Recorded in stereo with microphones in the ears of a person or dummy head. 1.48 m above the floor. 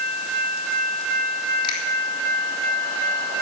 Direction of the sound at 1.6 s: 30° left (ahead or behind).